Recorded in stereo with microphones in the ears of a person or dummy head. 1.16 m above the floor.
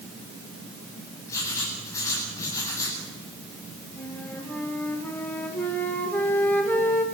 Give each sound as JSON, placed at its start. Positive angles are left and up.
{"t": 1.3, "sound": "writing", "side_deg": 15, "distance_m": 10.0}
{"t": 4.0, "sound": "a flute", "side_deg": 10, "distance_m": 3.0}